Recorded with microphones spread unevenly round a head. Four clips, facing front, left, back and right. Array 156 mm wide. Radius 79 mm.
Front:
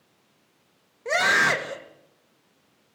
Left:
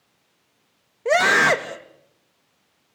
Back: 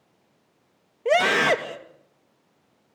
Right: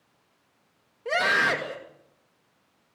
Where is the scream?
140° left, 2.5 m.